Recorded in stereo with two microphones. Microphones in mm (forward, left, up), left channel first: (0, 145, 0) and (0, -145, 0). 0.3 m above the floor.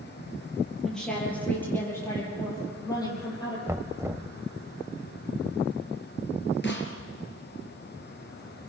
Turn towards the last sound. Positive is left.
turn(degrees=40)  # may be behind; listen again after turning